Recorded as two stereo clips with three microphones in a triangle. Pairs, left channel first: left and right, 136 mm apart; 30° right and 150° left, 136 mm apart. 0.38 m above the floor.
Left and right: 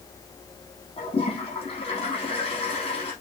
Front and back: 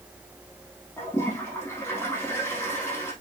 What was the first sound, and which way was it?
A toilet flushing, 45° left.